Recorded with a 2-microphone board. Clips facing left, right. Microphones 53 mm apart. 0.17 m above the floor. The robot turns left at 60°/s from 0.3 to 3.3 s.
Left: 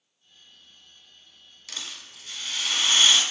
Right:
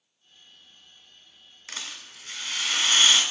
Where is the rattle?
75° right, 0.8 m; by 3.2 s 165° right, 0.8 m.